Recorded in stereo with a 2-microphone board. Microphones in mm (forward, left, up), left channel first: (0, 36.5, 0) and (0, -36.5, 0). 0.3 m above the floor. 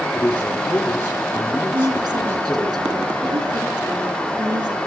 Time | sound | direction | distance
0.1 | a man speaking | 25° left (ahead or behind) | 8.5 m
1.7 | a woman speaking | 75° right (ahead or behind) | 3.5 m